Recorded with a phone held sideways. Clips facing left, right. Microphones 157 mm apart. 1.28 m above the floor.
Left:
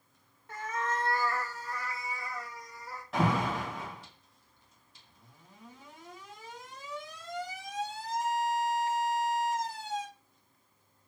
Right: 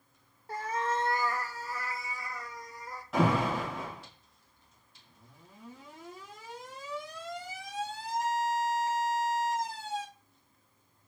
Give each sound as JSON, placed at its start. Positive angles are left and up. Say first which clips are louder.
{"t": 0.5, "sound": "a cat meowing", "louder": "right 2 dB", "side_deg": -35, "distance_m": 0.7}
{"t": 3.1, "sound": "an alarm", "louder": "right 2 dB", "side_deg": 0, "distance_m": 2.5}